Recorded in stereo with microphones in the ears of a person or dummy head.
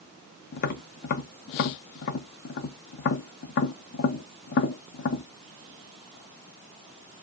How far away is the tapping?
About 0.6 m.